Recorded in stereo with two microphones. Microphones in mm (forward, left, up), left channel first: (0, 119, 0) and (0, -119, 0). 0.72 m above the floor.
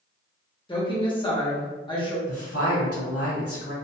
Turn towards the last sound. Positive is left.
turn(degrees=70)  # may be behind; listen again after turning